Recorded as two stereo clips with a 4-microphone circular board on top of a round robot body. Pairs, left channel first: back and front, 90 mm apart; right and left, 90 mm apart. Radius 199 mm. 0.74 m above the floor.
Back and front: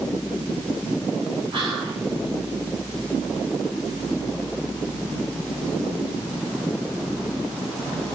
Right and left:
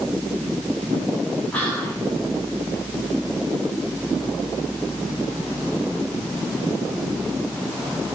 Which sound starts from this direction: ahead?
Whispering, at 1.5 s.